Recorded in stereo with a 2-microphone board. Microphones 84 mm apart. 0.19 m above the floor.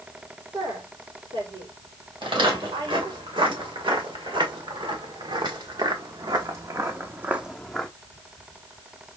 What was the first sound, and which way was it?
A woman speaking, 75° right (ahead or behind).